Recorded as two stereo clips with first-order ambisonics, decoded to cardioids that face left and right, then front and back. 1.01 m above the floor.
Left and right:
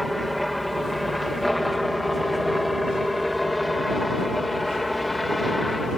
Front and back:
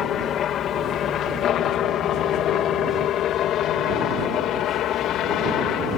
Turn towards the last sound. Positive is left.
turn(degrees=5)